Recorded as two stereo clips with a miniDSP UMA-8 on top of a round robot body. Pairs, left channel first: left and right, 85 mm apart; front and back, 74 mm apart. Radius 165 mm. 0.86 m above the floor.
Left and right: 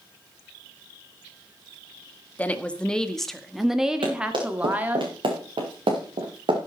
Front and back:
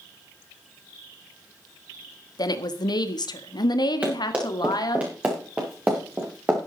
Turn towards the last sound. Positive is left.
turn(degrees=-110)